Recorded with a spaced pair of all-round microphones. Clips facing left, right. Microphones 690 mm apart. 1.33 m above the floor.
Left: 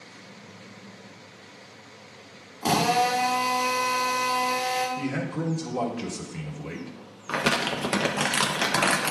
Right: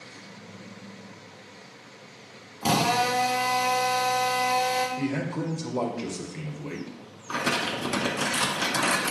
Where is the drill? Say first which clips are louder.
Left 1 dB; 40° right (ahead or behind), 1.5 m.